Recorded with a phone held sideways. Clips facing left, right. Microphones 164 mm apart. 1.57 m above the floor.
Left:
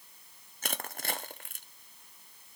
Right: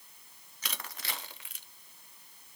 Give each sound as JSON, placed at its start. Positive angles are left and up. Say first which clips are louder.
{"t": 0.6, "sound": "crushing", "louder": "left 6 dB", "side_deg": 50, "distance_m": 0.9}